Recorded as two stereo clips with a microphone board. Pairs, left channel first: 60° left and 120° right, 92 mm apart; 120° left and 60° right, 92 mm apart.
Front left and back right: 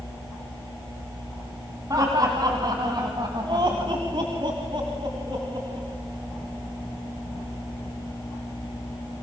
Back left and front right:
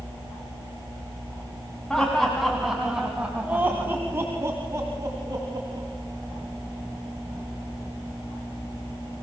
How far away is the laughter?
About 2.5 m.